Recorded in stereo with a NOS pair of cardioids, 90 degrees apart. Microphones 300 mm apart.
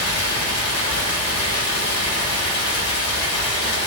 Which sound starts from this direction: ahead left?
Running water, at 0.0 s.